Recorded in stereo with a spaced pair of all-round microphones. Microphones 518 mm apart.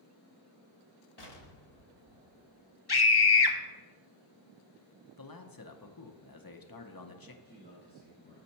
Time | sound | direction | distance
1.2 | an explosion | 50° left (ahead or behind) | 0.9 m
2.9 | a scream | 50° left (ahead or behind) | 0.8 m
5.2 | a man speaking | 45° left (ahead or behind) | 0.7 m
7.4 | a man speaking | 20° left (ahead or behind) | 2 m